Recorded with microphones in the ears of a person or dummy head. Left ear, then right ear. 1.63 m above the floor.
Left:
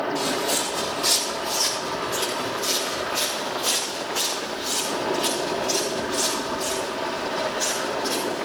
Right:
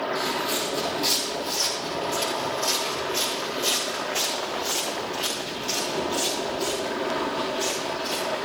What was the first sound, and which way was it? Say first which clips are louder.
Footsteps: left 2 dB; centre (ahead or behind).